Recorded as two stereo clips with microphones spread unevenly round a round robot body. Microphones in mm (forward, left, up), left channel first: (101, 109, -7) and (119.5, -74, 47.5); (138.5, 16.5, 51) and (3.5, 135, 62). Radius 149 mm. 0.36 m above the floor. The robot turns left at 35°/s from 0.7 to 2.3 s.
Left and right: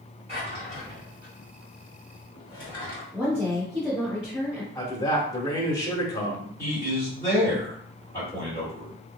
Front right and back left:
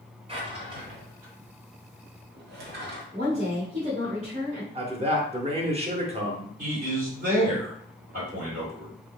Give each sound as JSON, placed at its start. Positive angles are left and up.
{"t": 0.3, "sound": "a drawer", "azimuth_deg": -160, "distance_m": 1.2}
{"t": 3.1, "sound": "a woman speaking", "azimuth_deg": 175, "distance_m": 1.2}
{"t": 4.8, "sound": "a man speaking", "azimuth_deg": 100, "distance_m": 1.0}
{"t": 6.6, "sound": "a man speaking", "azimuth_deg": 135, "distance_m": 1.9}